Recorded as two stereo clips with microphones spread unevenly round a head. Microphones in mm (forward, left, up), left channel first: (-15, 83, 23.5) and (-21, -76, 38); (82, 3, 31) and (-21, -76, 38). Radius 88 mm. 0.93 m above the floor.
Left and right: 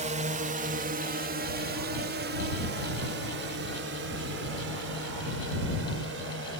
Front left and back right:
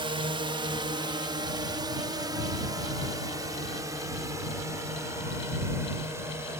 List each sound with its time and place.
0.0 s a drone: 110° right; by 6.6 s 70° right